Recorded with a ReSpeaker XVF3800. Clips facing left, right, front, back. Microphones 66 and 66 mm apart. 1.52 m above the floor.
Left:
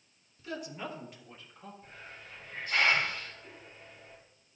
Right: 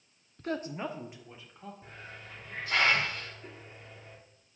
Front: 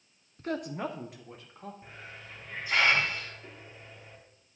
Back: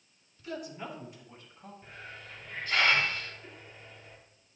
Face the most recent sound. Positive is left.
turn(degrees=-80)